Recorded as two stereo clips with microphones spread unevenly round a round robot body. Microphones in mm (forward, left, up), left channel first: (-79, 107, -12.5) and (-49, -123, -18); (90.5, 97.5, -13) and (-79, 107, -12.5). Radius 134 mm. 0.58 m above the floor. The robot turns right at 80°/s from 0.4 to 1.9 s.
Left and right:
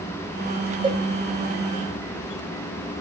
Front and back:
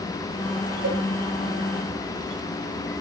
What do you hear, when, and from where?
0.8 s a cowbell: 150° right, 2.5 m; by 1.0 s 135° right, 2.5 m